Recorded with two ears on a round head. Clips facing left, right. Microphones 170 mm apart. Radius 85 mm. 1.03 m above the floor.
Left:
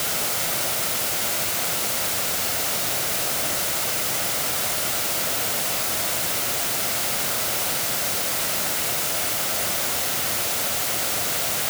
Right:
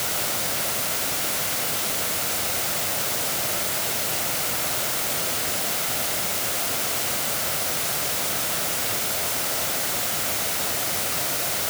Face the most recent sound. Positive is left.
No sound to turn to.